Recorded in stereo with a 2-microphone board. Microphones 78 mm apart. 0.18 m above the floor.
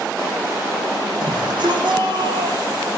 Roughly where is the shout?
Right.